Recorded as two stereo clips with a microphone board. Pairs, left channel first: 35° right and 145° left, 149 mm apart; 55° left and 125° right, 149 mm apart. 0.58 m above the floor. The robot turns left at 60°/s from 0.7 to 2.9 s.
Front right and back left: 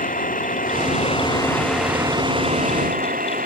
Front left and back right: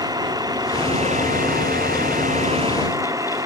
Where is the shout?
I don't hear a shout.